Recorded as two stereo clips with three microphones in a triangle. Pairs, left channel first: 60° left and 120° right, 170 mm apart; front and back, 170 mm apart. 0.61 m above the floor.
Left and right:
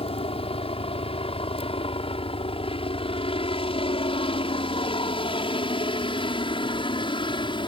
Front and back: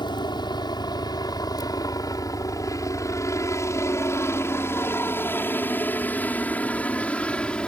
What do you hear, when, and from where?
0.0 s a helicopter: 45° left; by 7.7 s 80° left